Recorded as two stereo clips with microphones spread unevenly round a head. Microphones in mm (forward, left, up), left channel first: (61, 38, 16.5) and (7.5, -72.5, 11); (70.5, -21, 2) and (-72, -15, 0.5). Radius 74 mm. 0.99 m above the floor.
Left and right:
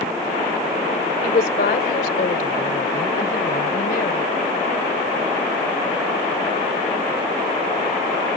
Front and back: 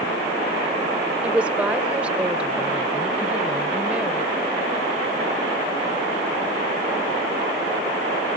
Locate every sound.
1.2 s a woman speaking: 95° left